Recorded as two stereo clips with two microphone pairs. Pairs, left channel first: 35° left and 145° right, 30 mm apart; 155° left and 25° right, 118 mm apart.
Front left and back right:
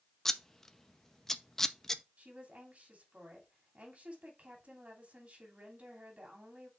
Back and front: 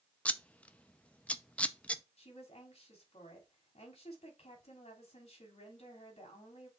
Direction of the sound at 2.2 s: Straight behind.